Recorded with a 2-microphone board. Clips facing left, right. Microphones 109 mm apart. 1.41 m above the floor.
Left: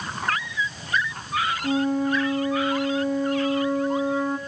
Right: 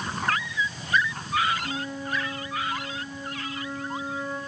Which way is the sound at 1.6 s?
70° left (ahead or behind).